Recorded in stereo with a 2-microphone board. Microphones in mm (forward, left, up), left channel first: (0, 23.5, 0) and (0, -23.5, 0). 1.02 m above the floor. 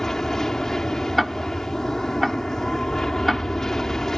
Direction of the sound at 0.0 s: 10° left (ahead or behind).